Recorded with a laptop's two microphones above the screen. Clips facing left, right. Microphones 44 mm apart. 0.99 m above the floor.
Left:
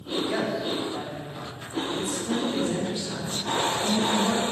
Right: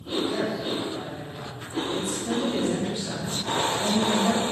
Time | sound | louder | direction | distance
0.3 | a man speaking | even | 60° left (ahead or behind) | 3 m
1.9 | a woman speaking | even | 55° right (ahead or behind) | 2.5 m